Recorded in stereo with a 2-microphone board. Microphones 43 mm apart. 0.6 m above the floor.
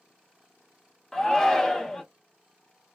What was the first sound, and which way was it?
A shout, 10° left (ahead or behind).